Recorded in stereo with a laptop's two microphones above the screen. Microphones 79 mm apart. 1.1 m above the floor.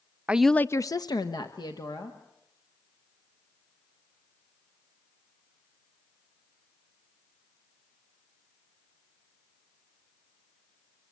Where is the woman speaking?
20° right (ahead or behind), 0.6 m; by 2.2 s 70° left (ahead or behind), 2.5 m.